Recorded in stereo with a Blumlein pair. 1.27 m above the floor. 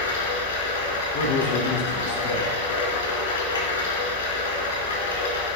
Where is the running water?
65° left, 4 m.